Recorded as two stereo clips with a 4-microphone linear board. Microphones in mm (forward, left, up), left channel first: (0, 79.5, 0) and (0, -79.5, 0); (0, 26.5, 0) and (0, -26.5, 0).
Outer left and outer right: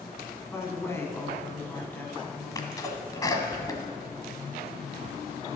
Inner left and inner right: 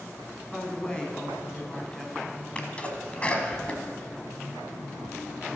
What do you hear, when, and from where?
0.5 s a woman speaking: 15° left (ahead or behind), 1.8 m; by 3.5 s centre (ahead or behind), 1.5 m
2.5 s a sneeze: 20° left (ahead or behind), 1.4 m